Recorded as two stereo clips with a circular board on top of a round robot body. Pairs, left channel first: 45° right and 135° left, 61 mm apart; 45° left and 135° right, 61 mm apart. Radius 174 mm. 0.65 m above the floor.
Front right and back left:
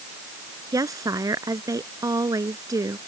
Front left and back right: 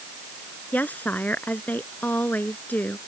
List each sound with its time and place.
0.7 s a woman speaking: 110° left